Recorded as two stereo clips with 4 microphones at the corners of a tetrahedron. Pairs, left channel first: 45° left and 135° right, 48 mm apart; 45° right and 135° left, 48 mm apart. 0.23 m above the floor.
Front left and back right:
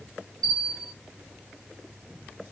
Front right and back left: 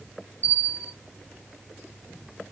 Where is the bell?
120° left, 1.4 m.